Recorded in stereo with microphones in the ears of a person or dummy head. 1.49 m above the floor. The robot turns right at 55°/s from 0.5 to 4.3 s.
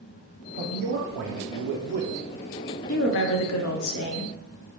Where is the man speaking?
140° right, 0.6 m; by 2.1 s 55° right, 0.6 m.